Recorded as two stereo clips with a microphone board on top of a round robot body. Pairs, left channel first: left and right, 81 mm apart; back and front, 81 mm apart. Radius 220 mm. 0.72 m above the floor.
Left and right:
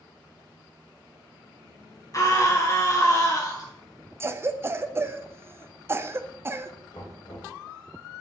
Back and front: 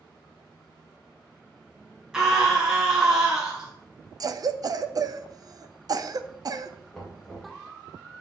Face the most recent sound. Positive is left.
turn(degrees=95)